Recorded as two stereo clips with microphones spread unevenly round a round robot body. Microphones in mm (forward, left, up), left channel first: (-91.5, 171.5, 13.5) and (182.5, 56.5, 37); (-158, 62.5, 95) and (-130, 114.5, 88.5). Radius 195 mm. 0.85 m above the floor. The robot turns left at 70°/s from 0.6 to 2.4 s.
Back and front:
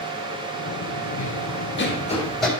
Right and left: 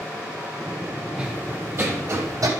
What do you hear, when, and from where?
1.2 s running footsteps: 140° left, 2.0 m; by 2.5 s 70° left, 3 m